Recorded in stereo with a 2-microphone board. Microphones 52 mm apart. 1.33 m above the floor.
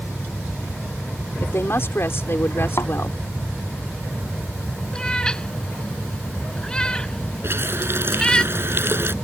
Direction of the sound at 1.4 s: 55° left (ahead or behind).